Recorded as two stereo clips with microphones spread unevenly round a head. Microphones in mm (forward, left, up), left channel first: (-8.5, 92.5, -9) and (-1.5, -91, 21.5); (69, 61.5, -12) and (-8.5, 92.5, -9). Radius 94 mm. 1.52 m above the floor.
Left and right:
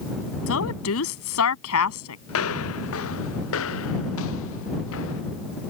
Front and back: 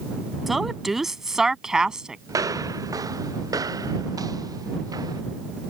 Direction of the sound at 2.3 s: 110° left.